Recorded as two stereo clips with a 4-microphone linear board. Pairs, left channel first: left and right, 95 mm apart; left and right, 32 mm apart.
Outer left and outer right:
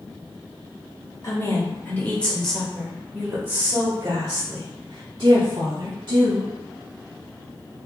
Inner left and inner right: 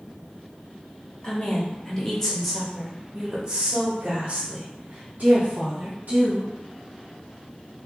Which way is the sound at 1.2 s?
35° left (ahead or behind).